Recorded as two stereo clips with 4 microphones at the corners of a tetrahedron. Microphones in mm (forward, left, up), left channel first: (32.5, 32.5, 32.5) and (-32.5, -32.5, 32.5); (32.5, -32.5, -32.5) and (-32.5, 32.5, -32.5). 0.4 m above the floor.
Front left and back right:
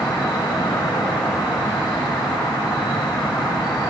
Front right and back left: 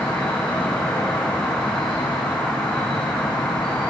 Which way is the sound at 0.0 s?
30° left.